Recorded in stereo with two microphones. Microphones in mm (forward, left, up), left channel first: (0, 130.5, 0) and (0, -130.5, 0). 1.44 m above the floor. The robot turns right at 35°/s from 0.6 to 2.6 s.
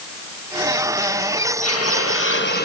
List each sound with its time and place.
1.6 s a hiss: 105° left, 1.4 m; by 2.6 s 140° left, 1.4 m